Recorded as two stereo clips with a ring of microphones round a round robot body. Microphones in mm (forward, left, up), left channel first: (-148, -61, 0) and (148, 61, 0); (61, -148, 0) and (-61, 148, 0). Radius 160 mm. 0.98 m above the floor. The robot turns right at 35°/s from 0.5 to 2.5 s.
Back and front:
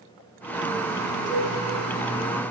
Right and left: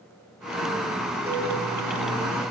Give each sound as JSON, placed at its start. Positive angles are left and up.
{"t": 1.3, "sound": "a cowbell", "azimuth_deg": 30, "distance_m": 2.0}